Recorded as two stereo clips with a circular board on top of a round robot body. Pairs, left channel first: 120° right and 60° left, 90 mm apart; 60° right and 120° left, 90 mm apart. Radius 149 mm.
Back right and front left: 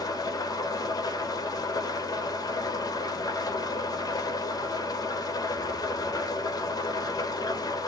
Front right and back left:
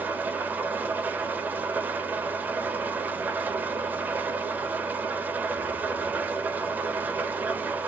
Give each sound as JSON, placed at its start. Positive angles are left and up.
{"t": 0.0, "sound": "an engine running", "azimuth_deg": -170, "distance_m": 0.8}